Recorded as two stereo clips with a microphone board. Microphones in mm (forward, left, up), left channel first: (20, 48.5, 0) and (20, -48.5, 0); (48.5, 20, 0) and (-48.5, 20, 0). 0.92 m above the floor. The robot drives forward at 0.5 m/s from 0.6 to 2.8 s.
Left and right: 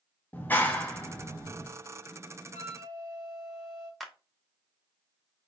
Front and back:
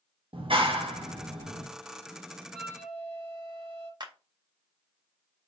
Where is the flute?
165° left, 2.5 m; by 3.9 s 170° left, 2.5 m.